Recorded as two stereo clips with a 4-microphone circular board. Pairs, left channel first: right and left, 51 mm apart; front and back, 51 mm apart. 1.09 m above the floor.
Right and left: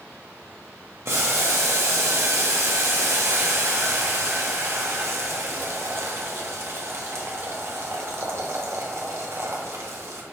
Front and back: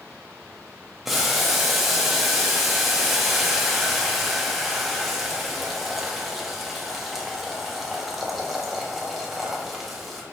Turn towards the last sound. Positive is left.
turn(degrees=95)